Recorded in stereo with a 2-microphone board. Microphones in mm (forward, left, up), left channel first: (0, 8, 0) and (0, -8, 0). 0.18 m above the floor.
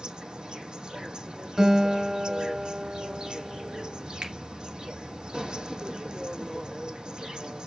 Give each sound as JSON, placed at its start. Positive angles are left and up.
{"t": 0.0, "sound": "an insect", "side_deg": -70, "distance_m": 1.0}
{"t": 1.6, "sound": "a guitar", "side_deg": -35, "distance_m": 2.5}
{"t": 4.2, "sound": "a finger snap", "side_deg": -65, "distance_m": 2.5}